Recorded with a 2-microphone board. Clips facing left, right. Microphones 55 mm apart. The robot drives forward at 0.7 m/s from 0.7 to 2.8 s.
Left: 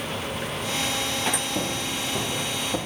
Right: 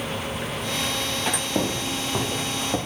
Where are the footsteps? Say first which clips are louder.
Right 3 dB; 65° right (ahead or behind), 2 m; by 2.8 s 35° right (ahead or behind), 3 m.